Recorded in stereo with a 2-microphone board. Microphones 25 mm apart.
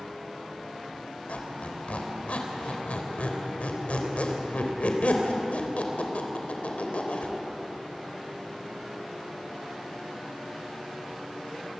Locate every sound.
1.3 s a squeak: 70° left (ahead or behind), 3.5 m